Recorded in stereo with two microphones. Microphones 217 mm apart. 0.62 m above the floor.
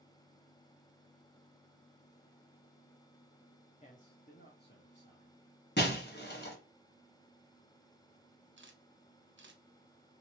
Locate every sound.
3.8 s a man speaking: 30° left (ahead or behind), 0.8 m; by 5.4 s 55° left (ahead or behind), 1.4 m
5.8 s breaking glass: 50° left (ahead or behind), 0.9 m
8.6 s a camera shutter: 60° right (ahead or behind), 0.6 m